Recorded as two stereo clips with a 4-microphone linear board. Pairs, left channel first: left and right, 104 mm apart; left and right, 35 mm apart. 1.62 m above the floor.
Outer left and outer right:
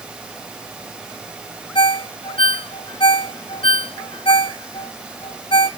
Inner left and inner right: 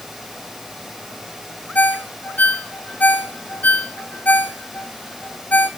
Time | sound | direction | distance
1.8 | a ringtone | 50° left (ahead or behind) | 0.8 m